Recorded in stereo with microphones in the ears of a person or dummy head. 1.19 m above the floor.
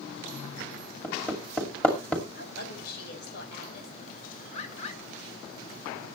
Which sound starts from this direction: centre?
Hammering, at 1.0 s.